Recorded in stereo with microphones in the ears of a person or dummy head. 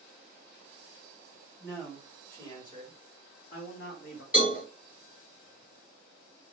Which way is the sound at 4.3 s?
10° right (ahead or behind).